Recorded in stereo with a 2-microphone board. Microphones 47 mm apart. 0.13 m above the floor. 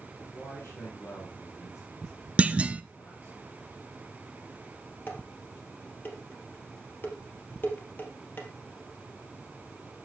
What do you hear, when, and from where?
0.2 s a man speaking: 70° left (ahead or behind), 4 m
2.4 s a clunk: 25° right (ahead or behind), 0.5 m
5.1 s dishes clattering: 45° left (ahead or behind), 2 m